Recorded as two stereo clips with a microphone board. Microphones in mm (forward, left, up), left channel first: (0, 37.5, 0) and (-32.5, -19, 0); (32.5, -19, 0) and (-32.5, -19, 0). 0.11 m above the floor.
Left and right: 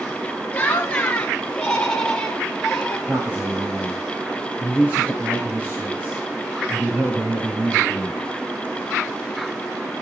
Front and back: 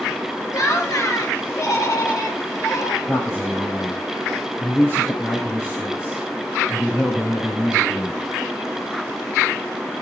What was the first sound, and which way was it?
Laughter, 5° right.